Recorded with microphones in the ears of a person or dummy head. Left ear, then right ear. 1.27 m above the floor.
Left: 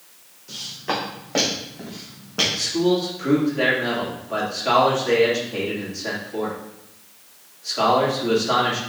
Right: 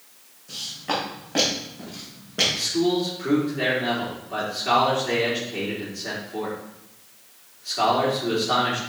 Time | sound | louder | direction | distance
0.5 | footsteps | left 1 dB | 35° left (ahead or behind) | 3.5 m
2.5 | a man speaking | left 2 dB | 55° left (ahead or behind) | 2.5 m